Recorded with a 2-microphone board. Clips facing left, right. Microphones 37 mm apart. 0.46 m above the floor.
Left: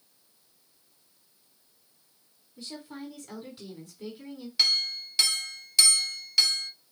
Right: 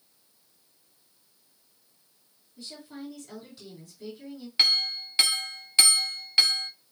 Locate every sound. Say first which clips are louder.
2.6 s a woman speaking: left 1 dB; 20° left (ahead or behind), 3.5 m
4.6 s a clink: right 2 dB; 30° right (ahead or behind), 1.0 m